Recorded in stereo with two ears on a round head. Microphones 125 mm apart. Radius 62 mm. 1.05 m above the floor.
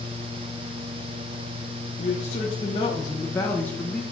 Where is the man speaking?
50° left (ahead or behind), 1.2 m; by 4.0 s 5° left (ahead or behind), 1.3 m.